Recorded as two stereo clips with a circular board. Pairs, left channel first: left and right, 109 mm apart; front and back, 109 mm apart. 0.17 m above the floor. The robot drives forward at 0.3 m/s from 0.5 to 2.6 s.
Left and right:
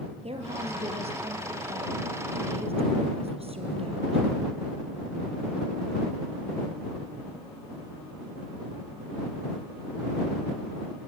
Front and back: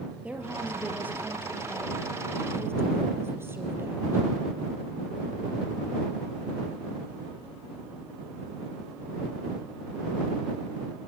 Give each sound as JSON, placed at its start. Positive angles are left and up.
{"t": 0.2, "sound": "a woman speaking", "azimuth_deg": -105, "distance_m": 4.0}